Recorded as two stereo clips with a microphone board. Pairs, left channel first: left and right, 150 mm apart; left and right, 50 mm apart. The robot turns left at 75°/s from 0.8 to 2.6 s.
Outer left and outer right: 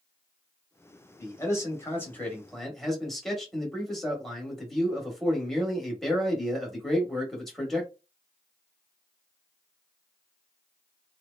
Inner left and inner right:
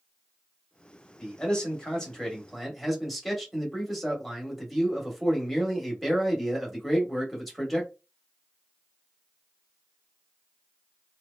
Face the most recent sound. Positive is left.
turn(degrees=0)  # may be behind; listen again after turning